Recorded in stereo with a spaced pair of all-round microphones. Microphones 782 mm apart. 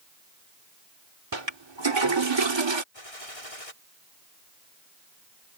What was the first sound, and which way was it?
A toilet flushing, 35° right (ahead or behind).